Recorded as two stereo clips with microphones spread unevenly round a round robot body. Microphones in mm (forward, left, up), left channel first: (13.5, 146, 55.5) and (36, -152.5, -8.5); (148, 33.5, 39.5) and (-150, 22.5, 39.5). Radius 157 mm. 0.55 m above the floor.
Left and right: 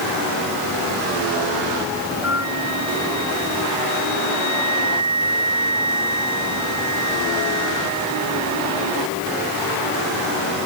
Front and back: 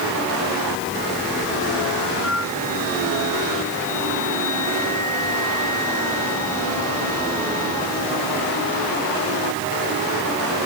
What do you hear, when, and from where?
2.2 s a flute: 45° left